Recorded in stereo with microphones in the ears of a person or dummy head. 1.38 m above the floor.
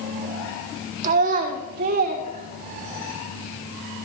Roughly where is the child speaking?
Right.